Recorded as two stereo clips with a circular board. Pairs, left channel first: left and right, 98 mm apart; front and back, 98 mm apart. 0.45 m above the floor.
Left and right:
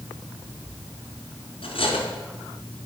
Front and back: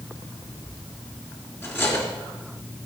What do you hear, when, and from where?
1.6 s cutlery clinking: 65° left, 3.5 m